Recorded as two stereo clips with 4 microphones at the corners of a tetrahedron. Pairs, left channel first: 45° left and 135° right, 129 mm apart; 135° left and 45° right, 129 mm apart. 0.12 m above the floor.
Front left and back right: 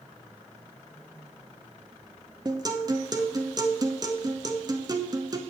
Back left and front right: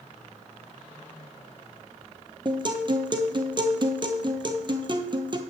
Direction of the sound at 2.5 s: 85° right.